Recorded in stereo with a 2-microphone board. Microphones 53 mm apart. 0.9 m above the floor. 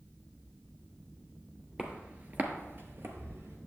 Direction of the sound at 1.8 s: 20° right (ahead or behind).